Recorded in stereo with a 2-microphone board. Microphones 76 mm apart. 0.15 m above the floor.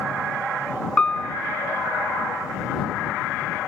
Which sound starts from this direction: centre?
A piano, at 1.0 s.